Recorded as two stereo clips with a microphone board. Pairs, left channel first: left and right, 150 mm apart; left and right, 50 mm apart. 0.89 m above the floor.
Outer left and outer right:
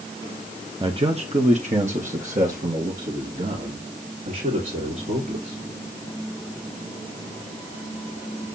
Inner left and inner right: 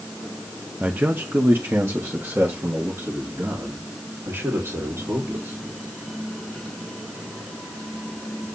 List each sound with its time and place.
0.8 s a man speaking: 35° right (ahead or behind), 0.9 m; by 5.6 s 70° right (ahead or behind), 3.5 m